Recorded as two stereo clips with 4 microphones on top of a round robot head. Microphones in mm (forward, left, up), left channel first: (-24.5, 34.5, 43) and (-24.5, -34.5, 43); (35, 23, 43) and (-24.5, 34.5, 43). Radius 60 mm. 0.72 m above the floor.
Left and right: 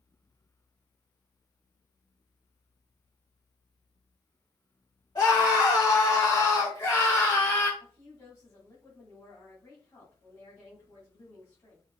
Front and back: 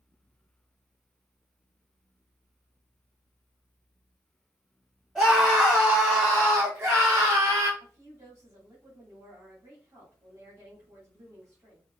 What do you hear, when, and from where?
5.2 s a scream: 100° left, 2.5 m; by 7.7 s 145° left, 2.5 m
7.8 s a woman speaking: 140° left, 2.5 m